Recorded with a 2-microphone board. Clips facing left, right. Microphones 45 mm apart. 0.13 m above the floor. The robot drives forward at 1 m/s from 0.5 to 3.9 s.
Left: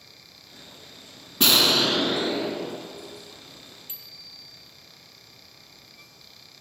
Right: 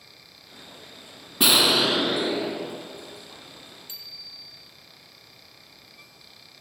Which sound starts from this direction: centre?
An explosion, at 1.4 s.